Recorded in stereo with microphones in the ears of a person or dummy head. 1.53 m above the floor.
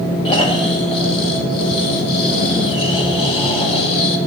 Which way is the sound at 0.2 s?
30° left (ahead or behind).